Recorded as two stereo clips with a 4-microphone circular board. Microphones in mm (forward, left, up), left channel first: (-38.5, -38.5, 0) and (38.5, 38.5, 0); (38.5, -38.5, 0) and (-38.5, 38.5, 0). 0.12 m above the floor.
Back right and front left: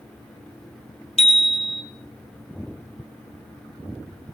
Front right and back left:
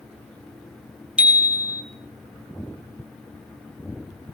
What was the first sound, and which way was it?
A bicycle bell, 150° right.